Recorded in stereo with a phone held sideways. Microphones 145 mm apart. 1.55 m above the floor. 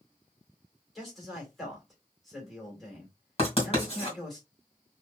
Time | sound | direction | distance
0.9 | a man speaking | centre (ahead or behind) | 2.5 m
3.4 | writing | 40° left (ahead or behind) | 2.5 m